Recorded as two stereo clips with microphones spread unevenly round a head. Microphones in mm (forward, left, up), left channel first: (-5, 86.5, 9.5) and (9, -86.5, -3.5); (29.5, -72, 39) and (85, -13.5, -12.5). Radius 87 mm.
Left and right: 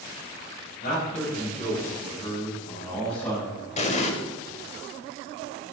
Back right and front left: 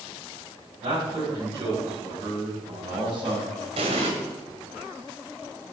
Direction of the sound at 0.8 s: 60° left.